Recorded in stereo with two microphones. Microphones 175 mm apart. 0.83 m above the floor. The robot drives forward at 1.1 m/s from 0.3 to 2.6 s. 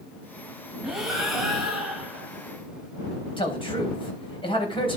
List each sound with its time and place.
0.8 s breathing: centre (ahead or behind), 2 m
3.4 s a man speaking: 30° left (ahead or behind), 4 m